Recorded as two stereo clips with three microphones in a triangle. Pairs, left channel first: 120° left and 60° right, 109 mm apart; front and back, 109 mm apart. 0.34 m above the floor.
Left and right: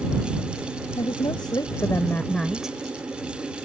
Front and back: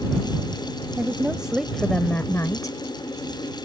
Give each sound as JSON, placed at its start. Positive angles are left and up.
{"t": 1.0, "sound": "a woman speaking", "azimuth_deg": 110}